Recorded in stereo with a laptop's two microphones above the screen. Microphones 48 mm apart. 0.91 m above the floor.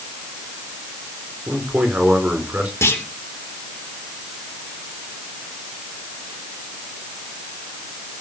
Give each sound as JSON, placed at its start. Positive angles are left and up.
{"t": 1.5, "sound": "a man speaking", "side_deg": -35, "distance_m": 3.0}
{"t": 2.8, "sound": "a clunk", "side_deg": 65, "distance_m": 3.0}